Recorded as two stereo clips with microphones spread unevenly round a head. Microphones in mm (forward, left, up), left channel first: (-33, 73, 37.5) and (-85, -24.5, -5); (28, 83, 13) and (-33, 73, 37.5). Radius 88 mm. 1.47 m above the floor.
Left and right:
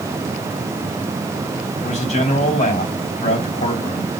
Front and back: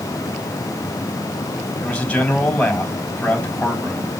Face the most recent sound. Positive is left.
turn(degrees=80)